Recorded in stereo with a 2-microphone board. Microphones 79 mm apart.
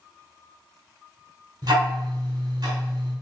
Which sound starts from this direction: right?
Ticking, at 1.6 s.